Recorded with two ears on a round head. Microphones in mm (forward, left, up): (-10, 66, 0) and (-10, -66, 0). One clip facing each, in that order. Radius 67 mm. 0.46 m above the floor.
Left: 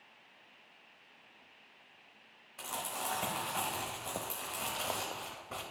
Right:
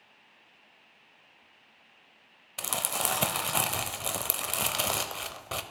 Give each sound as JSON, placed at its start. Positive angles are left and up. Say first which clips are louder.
{"t": 2.6, "sound": "crumpling", "louder": "right 6 dB", "side_deg": -75, "distance_m": 0.7}